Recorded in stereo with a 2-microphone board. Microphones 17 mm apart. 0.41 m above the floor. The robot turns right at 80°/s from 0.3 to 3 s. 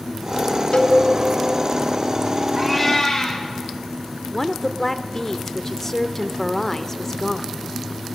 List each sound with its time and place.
0.7 s a cowbell: 60° left (ahead or behind), 2 m; by 1.0 s 75° left (ahead or behind), 2 m
2.6 s a cat meowing: 5° right, 7.5 m; by 3.4 s 30° left, 7.5 m
4.3 s a woman speaking: 20° left (ahead or behind), 1.0 m